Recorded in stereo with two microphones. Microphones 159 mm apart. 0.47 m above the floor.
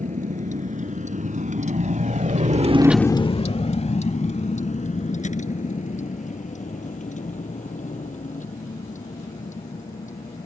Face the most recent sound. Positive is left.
turn(degrees=55)  # may be behind; listen again after turning